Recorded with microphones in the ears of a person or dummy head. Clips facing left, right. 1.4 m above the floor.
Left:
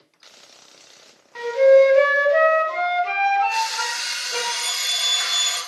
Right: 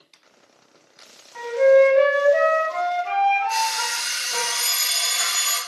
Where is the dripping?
No dripping in this recording.